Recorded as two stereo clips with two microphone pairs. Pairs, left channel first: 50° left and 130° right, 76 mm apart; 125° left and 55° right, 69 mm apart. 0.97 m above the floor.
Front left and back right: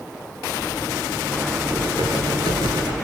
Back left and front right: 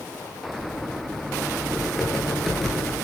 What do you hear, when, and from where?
1.6 s typing on a keyboard: 145° right, 10 m